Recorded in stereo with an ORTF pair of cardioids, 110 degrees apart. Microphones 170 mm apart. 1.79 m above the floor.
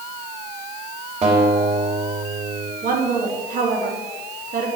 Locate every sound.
1.2 s a guitar: 40° right, 4 m
2.8 s a woman speaking: 60° right, 3 m